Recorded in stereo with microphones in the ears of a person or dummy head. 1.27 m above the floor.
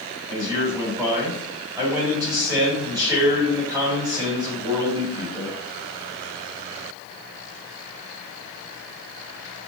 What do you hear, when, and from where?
0.3 s a man speaking: 25° right (ahead or behind), 2.5 m